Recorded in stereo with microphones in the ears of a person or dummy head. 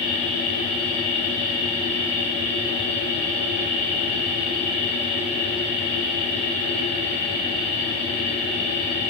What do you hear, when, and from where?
0.0 s a machine running: 25° left (ahead or behind), 0.9 m